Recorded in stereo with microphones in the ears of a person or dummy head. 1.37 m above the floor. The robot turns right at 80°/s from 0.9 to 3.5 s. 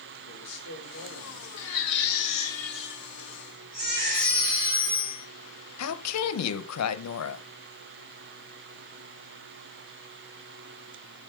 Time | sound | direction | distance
0.3 | a man speaking | 65° left | 3 m
1.6 | a baby crying | 85° left | 1.8 m
4.1 | a phone ringing | 70° right (ahead or behind) | 3.5 m
5.8 | a woman speaking | 90° left | 1.0 m